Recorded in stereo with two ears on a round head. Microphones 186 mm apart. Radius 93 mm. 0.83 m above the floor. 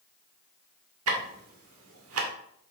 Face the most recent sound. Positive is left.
turn(degrees=-75)  # may be behind; listen again after turning